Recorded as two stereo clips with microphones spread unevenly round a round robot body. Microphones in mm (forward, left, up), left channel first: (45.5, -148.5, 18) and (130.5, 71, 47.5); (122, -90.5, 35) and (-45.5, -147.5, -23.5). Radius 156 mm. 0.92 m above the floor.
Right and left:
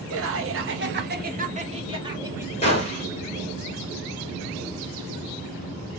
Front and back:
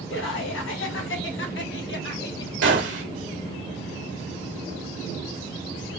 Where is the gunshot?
Straight behind, 1.7 m.